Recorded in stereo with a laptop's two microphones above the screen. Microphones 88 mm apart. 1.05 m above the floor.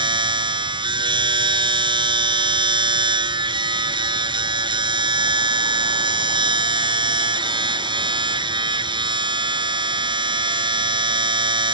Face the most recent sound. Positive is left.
turn(degrees=-60)  # may be behind; listen again after turning